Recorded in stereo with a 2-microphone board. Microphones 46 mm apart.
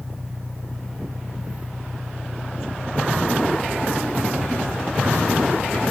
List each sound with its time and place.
0.0 s an engine running: 25° left (ahead or behind)